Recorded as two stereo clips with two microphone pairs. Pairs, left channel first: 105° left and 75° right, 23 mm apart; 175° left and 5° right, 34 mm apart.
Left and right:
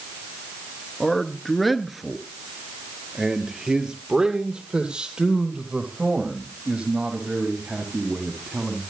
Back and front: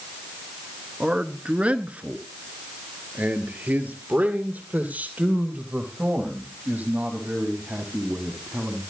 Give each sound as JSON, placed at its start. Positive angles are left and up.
{"t": 1.0, "sound": "a man speaking", "azimuth_deg": 45, "distance_m": 1.4}